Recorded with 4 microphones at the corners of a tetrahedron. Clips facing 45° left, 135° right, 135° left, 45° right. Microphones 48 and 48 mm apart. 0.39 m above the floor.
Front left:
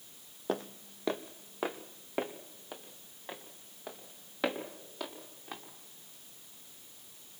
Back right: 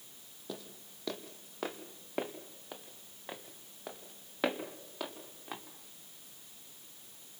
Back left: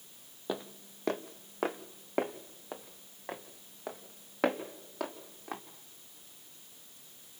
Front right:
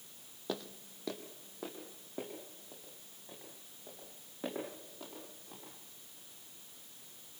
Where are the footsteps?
65° left, 0.7 m; by 5.6 s 145° left, 4 m.